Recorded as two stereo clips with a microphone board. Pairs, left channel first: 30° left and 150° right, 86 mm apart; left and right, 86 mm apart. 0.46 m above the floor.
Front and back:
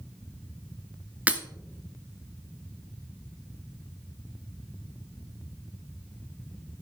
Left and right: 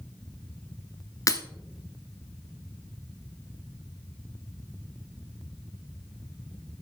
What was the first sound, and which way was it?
Breaking glass, 140° left.